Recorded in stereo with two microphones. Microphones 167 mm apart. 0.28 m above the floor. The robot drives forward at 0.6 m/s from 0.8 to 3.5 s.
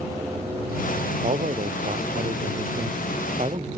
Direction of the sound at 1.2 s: 45° right (ahead or behind).